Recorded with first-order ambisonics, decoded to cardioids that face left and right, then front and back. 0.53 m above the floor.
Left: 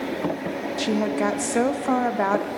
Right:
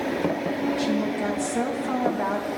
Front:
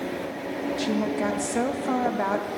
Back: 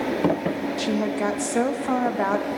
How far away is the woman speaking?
About 0.7 m.